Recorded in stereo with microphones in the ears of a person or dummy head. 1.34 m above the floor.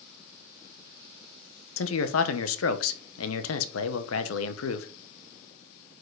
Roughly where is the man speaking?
Left.